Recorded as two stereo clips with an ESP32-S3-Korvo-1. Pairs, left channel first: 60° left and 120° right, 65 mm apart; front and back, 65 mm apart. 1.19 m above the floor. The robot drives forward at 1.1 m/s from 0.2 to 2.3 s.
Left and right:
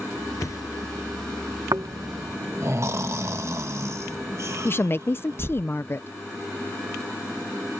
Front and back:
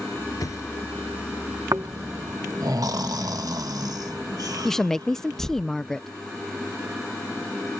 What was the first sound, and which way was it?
A thud, 25° left.